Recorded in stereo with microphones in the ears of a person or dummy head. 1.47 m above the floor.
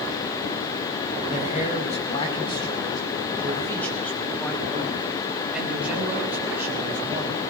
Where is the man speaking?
40° left (ahead or behind), 4.5 m; by 7.4 s 15° right (ahead or behind), 6.5 m.